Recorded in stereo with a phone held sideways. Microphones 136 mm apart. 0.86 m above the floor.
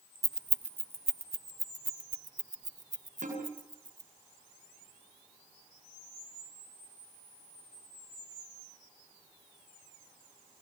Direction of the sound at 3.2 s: 75° right (ahead or behind).